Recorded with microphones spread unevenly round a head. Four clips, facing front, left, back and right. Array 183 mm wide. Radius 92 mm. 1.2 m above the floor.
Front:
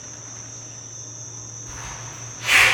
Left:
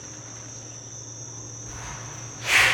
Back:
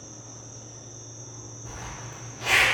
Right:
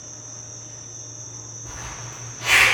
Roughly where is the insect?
Left.